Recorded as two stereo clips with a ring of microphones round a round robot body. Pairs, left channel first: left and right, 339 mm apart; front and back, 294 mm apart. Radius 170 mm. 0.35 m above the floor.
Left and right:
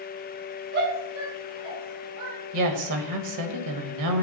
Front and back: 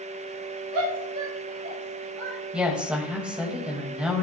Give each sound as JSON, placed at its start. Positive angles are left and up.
{"t": 0.7, "sound": "a shout", "azimuth_deg": -150, "distance_m": 4.5}
{"t": 2.5, "sound": "a woman speaking", "azimuth_deg": -95, "distance_m": 1.6}